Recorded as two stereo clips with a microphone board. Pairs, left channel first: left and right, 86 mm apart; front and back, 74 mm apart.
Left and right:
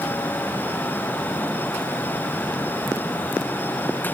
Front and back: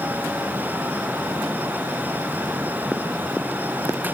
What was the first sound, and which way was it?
Only background noise.